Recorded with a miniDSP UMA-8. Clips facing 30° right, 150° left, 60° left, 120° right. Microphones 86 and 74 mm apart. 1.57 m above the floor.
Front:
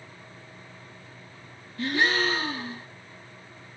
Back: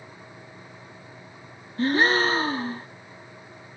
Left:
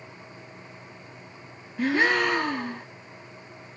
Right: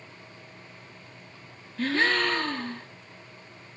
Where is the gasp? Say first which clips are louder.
Back 4 dB, left 2 dB; 130° left, 1.2 m.